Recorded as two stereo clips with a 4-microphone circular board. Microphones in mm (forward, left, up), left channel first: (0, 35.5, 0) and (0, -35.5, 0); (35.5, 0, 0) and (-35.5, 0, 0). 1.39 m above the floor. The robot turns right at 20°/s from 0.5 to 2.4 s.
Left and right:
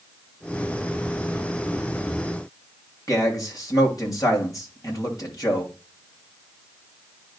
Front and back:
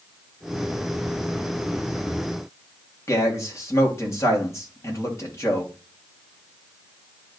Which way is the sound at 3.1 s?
50° left.